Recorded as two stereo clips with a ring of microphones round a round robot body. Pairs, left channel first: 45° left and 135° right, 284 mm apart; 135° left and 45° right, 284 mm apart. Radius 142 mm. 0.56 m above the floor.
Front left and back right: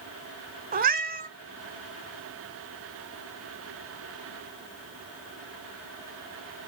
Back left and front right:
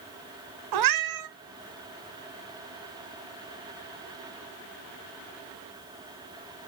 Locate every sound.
0.7 s a cat meowing: 70° right, 1.0 m